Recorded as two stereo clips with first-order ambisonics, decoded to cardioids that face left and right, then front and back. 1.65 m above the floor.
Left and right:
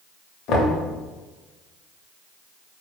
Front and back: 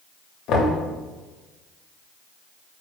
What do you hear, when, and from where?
0.5 s knocking: 45° left, 0.6 m